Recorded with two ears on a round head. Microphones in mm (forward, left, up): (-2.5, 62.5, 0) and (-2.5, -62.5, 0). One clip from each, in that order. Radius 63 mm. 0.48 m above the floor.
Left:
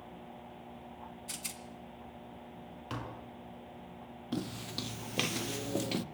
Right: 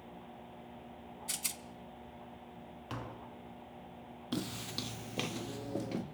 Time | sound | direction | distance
1.3 | a rattle | 25° right (ahead or behind) | 1.9 m
2.9 | tapping | 5° left (ahead or behind) | 5 m
4.3 | footsteps | 30° right (ahead or behind) | 1.0 m